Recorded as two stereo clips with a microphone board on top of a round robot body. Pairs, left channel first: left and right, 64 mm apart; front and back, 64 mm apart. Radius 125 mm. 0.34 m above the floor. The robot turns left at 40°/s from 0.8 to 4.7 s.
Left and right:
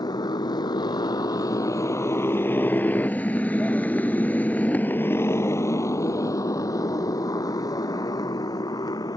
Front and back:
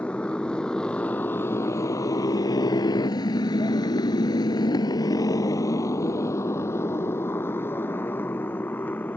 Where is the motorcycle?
75° left; by 9.2 s 65° left.